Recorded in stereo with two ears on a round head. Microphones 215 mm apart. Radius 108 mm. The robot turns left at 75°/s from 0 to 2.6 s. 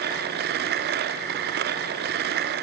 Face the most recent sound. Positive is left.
No sound to turn to.